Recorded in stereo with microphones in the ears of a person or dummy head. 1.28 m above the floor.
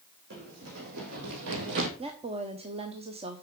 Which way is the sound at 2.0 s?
30° right (ahead or behind).